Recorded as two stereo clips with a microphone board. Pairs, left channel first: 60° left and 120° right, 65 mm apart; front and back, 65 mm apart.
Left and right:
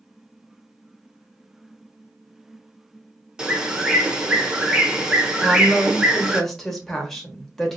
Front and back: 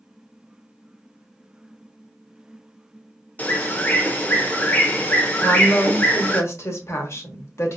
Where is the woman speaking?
25° right, 1.1 m.